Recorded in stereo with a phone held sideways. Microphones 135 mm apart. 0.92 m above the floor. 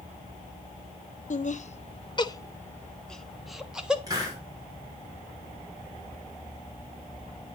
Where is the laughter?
60° left (ahead or behind), 0.6 m; by 4.0 s 5° right (ahead or behind), 1.3 m.